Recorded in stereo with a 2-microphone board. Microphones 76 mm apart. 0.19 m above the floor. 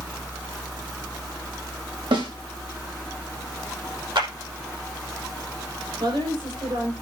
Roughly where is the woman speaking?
Right.